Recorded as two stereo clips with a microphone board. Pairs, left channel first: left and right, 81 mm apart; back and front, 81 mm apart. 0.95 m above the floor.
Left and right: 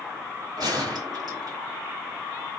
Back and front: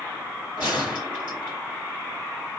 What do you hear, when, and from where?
0.6 s a gunshot: 70° right, 1.5 m